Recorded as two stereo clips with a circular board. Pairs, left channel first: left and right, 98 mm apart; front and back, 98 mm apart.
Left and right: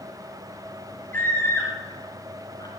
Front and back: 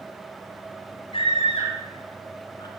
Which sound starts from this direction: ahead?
A scream, at 1.1 s.